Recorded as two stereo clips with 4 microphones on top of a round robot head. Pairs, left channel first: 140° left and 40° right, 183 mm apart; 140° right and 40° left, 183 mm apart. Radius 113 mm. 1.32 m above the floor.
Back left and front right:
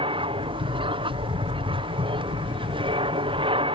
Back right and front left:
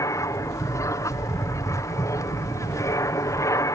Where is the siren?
I don't hear a siren.